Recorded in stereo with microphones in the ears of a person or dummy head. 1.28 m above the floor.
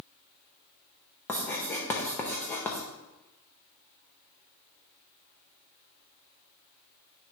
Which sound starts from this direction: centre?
Writing, at 1.3 s.